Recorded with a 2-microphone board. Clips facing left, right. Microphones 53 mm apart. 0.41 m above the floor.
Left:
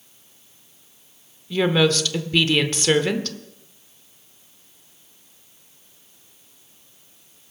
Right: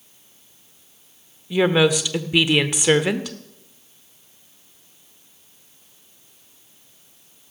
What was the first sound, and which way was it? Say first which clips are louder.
A woman speaking: right 2 dB; 15° right (ahead or behind).